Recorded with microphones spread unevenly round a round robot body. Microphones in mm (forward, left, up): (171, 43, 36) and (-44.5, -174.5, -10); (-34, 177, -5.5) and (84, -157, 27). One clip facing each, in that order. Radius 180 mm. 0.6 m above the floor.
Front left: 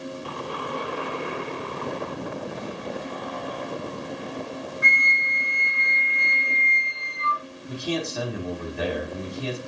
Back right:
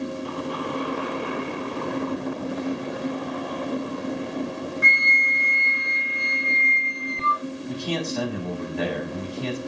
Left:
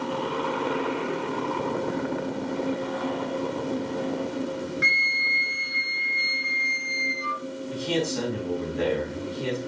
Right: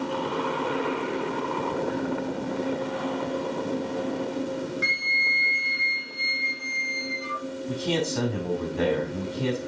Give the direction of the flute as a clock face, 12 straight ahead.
7 o'clock.